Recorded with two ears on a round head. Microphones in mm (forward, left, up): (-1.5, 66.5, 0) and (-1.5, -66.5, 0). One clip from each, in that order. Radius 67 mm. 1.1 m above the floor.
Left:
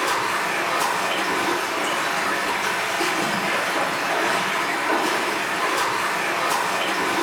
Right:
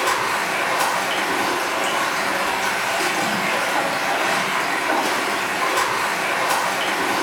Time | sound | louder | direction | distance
0.0 | running water | right 2 dB | 35° right (ahead or behind) | 1.3 m